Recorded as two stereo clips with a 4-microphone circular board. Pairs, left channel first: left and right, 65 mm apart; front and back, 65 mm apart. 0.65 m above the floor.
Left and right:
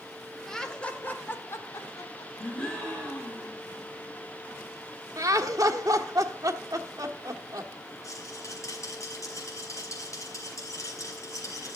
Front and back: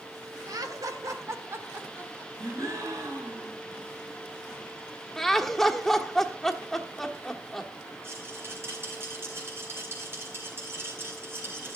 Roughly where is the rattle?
Behind left.